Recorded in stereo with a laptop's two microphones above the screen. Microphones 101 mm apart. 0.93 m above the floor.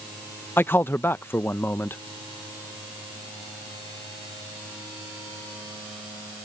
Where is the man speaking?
20° left (ahead or behind).